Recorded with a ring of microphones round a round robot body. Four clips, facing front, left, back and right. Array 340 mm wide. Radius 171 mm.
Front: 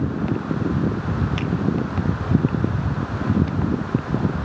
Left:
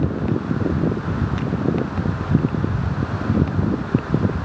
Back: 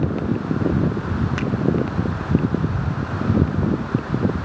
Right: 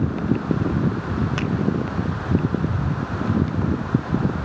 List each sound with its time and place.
1.4 s a finger snap: 100° right, 1.9 m